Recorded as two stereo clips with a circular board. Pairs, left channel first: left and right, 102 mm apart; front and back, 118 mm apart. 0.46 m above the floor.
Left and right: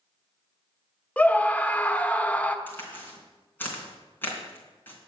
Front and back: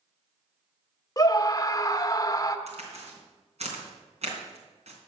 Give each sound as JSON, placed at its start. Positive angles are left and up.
{"t": 1.2, "sound": "a scream", "azimuth_deg": 25, "distance_m": 1.0}
{"t": 2.7, "sound": "a crack", "azimuth_deg": 160, "distance_m": 3.0}